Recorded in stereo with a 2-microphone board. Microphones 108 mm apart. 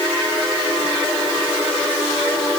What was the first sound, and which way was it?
Only background noise.